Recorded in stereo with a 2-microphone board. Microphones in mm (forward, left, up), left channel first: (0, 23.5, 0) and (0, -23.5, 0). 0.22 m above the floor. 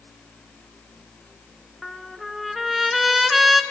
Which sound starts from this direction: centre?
A trumpet, at 1.8 s.